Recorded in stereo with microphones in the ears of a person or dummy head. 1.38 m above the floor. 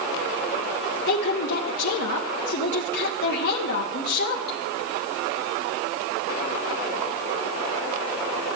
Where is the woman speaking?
60° left (ahead or behind), 1.2 m.